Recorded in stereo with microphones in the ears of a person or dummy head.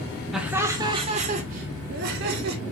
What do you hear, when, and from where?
0.3 s laughter: 5° right (ahead or behind), 1.2 m; by 2.6 s 60° right (ahead or behind), 2.5 m